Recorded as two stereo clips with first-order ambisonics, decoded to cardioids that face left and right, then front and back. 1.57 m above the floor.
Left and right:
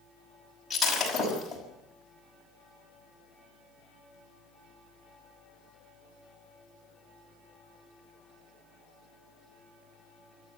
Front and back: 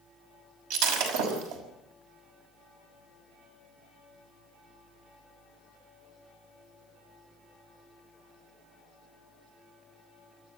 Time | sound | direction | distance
0.7 | breaking glass | 175° left | 5.5 m